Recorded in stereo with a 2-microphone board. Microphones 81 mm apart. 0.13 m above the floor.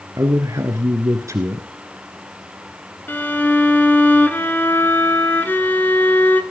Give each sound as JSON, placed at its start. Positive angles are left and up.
{"t": 0.2, "sound": "a man speaking", "side_deg": -40, "distance_m": 1.5}
{"t": 3.1, "sound": "a violin", "side_deg": 25, "distance_m": 1.2}